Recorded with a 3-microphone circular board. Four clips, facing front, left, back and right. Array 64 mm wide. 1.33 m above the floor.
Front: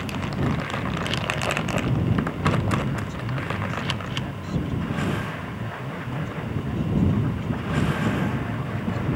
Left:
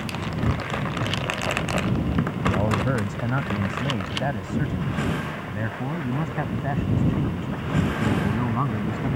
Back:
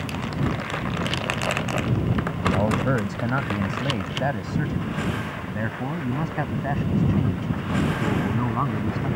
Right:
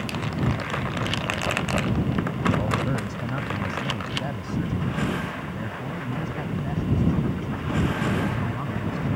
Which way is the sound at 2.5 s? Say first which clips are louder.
Left 3 dB, back 4 dB; 155° left.